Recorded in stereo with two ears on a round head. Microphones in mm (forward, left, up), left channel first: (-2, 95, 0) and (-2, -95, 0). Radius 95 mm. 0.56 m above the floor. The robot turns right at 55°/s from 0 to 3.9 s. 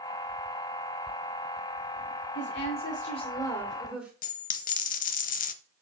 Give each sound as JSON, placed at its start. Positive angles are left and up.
{"t": 2.4, "sound": "a woman speaking", "azimuth_deg": 100, "distance_m": 2.0}
{"t": 4.2, "sound": "a dropped coin", "side_deg": 40, "distance_m": 1.0}